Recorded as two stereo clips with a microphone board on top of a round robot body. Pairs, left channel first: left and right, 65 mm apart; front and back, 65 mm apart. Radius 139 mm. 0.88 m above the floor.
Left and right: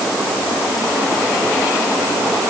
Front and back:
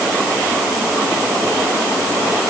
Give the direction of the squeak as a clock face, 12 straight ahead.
No squeak in this recording.